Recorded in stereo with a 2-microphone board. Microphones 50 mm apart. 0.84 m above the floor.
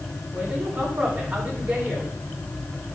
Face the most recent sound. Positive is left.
turn(degrees=-20)  # may be behind; listen again after turning